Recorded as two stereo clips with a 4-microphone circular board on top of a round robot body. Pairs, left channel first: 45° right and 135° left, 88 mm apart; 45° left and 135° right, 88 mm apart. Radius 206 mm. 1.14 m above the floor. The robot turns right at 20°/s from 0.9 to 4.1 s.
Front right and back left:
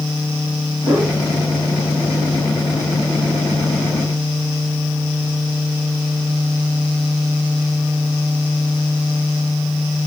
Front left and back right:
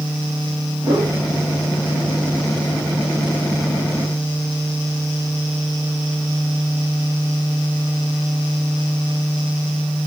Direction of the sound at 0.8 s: Straight behind.